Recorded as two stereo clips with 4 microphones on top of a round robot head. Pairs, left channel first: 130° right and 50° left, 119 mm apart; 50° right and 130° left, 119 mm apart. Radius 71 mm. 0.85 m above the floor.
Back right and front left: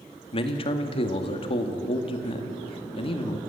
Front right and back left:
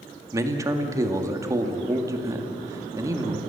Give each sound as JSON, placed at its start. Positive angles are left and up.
{"t": 0.3, "sound": "a man speaking", "azimuth_deg": -165, "distance_m": 2.0}